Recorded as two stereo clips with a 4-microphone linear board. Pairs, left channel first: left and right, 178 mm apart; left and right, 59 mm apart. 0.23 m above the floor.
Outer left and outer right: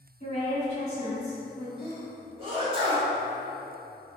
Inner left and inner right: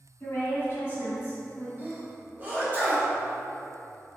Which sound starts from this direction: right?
A sneeze, at 1.8 s.